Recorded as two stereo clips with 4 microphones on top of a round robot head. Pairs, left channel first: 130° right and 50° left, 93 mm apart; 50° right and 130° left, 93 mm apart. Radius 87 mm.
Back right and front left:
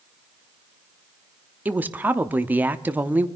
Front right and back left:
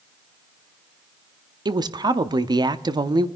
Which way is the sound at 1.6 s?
115° left.